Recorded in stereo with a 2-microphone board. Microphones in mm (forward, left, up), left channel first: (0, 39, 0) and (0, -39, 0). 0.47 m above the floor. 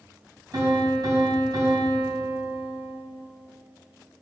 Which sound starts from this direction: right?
A piano, at 0.5 s.